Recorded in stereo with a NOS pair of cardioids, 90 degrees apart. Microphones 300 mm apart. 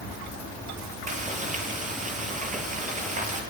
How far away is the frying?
About 7.5 m.